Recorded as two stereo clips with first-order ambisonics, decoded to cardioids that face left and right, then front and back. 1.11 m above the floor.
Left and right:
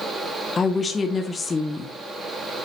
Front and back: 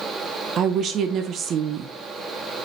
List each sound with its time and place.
0.6 s a woman speaking: 155° left, 0.6 m